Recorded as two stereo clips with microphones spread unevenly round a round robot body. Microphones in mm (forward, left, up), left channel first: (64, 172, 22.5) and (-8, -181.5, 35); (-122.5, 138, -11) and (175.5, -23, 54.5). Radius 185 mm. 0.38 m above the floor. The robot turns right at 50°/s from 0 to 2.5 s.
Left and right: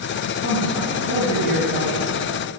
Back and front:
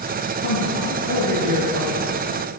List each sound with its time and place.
0.4 s a man speaking: 140° left, 7 m; by 2.1 s 140° right, 7 m